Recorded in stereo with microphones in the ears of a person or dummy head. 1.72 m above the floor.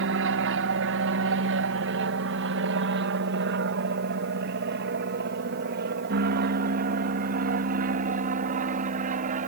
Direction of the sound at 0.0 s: 60° right (ahead or behind).